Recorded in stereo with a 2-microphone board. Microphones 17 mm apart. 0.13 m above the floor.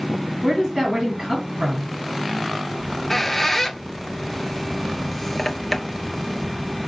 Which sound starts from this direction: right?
A woman speaking, at 0.4 s.